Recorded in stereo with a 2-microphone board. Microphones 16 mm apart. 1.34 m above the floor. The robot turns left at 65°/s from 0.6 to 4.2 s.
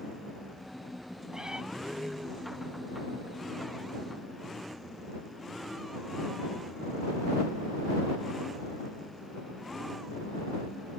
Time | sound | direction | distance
1.3 | a cat meowing | 40° right (ahead or behind) | ?